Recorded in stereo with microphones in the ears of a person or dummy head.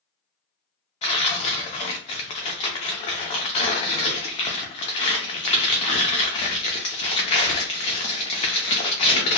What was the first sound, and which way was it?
Tearing paper, 25° left (ahead or behind).